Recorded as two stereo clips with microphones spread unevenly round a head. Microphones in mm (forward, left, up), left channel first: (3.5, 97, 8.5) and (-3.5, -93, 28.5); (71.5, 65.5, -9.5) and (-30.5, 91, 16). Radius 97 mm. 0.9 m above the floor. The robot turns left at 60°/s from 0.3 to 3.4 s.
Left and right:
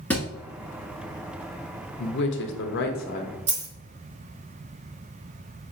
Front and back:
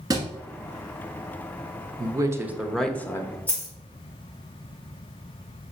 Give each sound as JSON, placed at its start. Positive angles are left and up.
{"t": 0.1, "sound": "a thud", "azimuth_deg": 175, "distance_m": 1.1}
{"t": 2.0, "sound": "a man speaking", "azimuth_deg": 115, "distance_m": 0.9}
{"t": 3.5, "sound": "a dropped coin", "azimuth_deg": -100, "distance_m": 1.6}